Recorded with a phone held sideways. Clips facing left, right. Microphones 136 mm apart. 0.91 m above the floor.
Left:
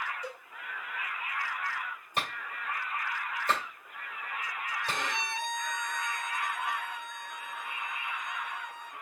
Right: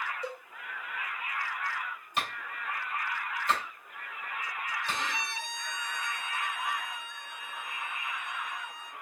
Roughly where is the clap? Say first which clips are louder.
Even; left.